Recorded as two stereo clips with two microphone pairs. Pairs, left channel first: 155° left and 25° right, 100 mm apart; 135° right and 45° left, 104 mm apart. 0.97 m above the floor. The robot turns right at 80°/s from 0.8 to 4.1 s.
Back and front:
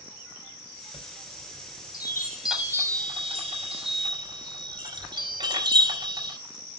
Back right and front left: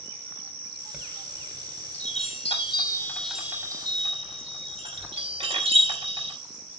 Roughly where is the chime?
Behind left.